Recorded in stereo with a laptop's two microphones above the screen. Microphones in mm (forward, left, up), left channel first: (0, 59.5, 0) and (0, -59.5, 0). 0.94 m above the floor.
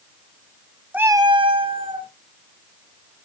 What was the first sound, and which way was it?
A cat meowing, 10° right (ahead or behind).